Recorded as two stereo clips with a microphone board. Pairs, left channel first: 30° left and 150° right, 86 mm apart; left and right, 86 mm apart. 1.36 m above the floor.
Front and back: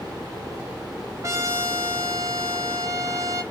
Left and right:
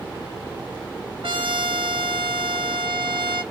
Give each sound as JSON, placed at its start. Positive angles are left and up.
{"t": 1.2, "sound": "a trumpet", "azimuth_deg": -95, "distance_m": 0.7}